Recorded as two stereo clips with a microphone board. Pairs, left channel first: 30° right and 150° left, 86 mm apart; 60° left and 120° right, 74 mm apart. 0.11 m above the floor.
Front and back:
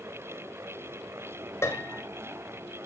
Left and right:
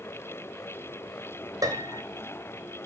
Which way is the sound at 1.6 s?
85° right.